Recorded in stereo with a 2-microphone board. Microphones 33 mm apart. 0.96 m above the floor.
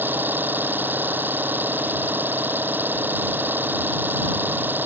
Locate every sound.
0.0 s an engine running: 90° right